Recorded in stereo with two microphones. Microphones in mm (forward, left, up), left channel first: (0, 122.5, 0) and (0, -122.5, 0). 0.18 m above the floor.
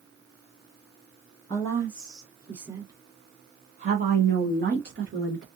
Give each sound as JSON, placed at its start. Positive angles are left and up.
{"t": 1.5, "sound": "a woman speaking", "side_deg": 15, "distance_m": 1.4}